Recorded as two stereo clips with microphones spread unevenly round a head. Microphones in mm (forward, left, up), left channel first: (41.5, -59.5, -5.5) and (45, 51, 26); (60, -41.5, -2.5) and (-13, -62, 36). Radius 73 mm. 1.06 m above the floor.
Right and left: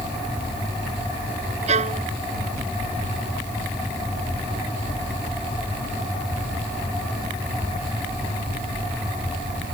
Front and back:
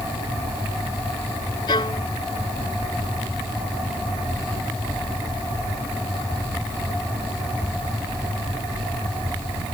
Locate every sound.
1.7 s a violin: 70° left